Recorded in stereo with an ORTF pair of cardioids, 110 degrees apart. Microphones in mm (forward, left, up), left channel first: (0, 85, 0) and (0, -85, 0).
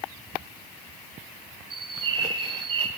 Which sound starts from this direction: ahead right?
A bird, at 1.7 s.